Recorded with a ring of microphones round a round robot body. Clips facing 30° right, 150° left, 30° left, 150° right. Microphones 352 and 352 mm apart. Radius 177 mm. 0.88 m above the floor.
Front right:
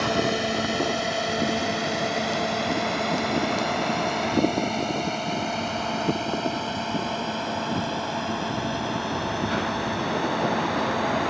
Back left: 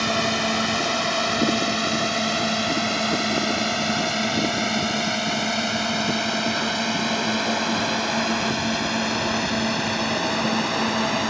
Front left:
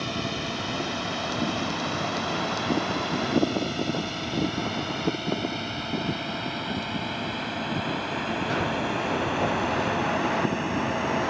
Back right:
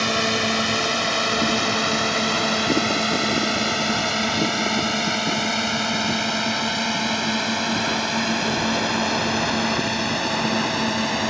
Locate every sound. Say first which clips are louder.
0.0 s a drone: front right 1 dB, back right 7 dB; 145° right; by 11.3 s 175° right